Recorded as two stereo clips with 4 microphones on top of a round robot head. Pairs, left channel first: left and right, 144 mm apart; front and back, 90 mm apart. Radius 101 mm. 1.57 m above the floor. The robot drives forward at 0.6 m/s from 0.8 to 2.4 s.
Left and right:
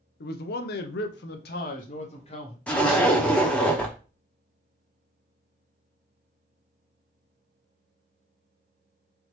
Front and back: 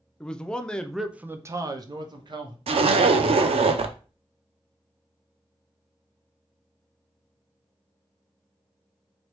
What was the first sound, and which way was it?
A man speaking, 85° left.